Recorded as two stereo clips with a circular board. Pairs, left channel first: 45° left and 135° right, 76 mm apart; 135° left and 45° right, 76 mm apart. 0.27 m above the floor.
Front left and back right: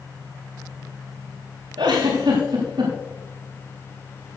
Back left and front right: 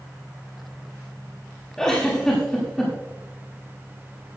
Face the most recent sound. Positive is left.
turn(degrees=-145)